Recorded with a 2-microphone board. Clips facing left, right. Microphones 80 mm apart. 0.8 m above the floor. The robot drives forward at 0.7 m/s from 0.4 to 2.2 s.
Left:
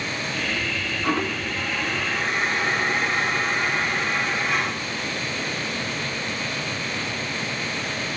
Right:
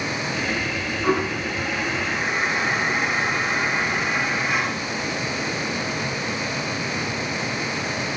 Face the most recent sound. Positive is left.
turn(degrees=-15)  # may be behind; listen again after turning